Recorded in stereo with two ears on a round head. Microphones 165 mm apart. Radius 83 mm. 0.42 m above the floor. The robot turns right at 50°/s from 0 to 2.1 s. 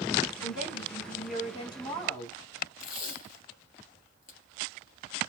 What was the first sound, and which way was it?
A woman speaking, 90° left.